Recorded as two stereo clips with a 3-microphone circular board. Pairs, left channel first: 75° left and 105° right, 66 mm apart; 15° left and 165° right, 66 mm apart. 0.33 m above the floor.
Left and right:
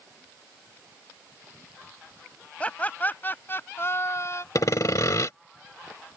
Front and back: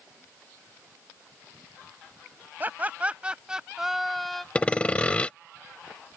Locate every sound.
2.6 s laughter: 140° left; by 4.5 s 100° left
4.5 s sawing: 80° left